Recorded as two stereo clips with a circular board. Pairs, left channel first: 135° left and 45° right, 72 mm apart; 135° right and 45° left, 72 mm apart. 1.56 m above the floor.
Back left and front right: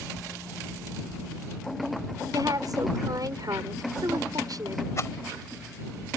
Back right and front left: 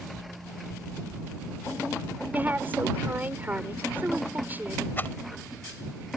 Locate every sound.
2.3 s a woman speaking: 15° right
5.0 s a rattle: 170° left